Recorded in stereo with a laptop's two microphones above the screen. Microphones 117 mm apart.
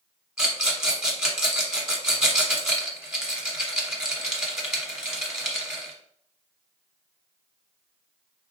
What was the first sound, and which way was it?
A rattle, 5° right (ahead or behind).